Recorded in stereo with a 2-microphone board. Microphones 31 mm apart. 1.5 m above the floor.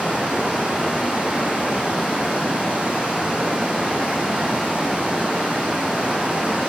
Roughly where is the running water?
Right.